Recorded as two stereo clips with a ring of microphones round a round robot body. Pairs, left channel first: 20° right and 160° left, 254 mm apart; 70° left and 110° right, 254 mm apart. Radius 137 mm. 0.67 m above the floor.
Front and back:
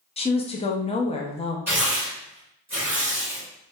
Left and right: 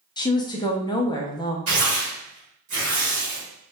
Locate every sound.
0.2 s a woman speaking: 15° left, 0.5 m
1.7 s tearing paper: 120° right, 1.7 m